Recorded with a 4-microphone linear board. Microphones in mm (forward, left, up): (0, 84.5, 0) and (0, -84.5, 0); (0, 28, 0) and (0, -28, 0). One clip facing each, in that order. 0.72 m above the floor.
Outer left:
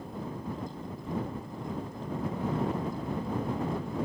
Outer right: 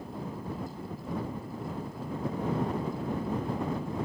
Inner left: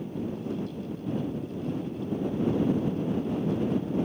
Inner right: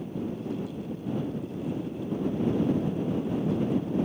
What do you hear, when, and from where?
Only background noise.